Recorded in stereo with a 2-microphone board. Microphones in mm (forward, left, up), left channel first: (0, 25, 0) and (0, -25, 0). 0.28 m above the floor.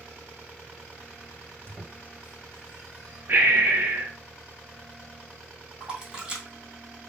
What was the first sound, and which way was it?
A squeak, 45° right (ahead or behind).